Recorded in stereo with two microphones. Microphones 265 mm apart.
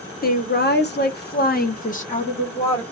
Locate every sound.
0.2 s a woman speaking: 35° left (ahead or behind), 1.0 m; by 2.8 s 20° left (ahead or behind), 1.3 m